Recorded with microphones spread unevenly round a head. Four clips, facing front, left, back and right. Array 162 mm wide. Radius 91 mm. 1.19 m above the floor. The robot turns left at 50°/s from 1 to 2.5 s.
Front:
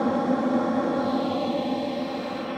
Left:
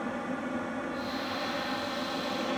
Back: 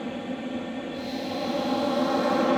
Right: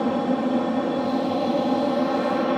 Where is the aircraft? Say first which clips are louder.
Right 12 dB, front 9 dB; 60° right; by 2.6 s 135° right.